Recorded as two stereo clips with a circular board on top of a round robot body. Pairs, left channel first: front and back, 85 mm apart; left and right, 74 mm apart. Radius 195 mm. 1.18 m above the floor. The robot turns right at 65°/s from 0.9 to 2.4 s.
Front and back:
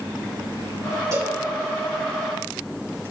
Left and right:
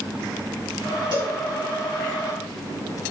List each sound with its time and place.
1.1 s a cowbell: 120° right, 2 m; by 1.4 s 105° right, 2 m